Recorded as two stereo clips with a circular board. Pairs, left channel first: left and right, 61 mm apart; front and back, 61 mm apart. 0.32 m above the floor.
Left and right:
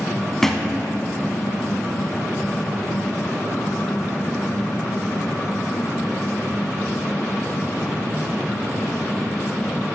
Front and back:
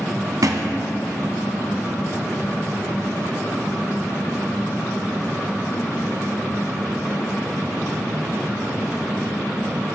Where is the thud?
170° left, 0.9 m.